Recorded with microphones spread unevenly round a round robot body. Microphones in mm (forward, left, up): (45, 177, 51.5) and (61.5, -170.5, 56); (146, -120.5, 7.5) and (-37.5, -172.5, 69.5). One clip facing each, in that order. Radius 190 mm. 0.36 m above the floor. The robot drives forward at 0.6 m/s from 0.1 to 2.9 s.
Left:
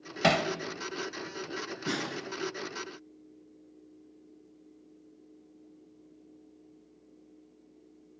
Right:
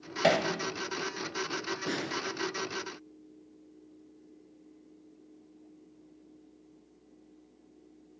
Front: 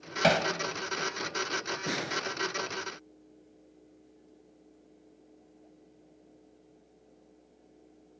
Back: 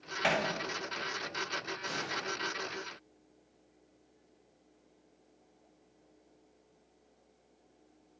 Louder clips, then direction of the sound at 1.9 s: Left 2 dB, front 8 dB; 25° left.